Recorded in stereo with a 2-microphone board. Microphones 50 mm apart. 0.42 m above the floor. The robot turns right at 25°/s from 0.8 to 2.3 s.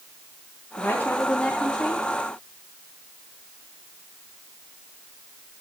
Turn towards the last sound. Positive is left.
turn(degrees=170)